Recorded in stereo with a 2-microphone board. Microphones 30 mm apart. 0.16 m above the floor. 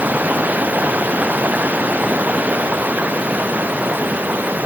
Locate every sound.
0.0 s running water: 70° right (ahead or behind)